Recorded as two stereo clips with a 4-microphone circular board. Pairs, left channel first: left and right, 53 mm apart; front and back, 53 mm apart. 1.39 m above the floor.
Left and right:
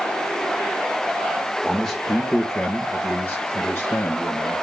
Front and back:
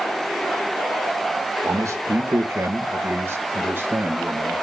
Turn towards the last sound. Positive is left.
turn(degrees=125)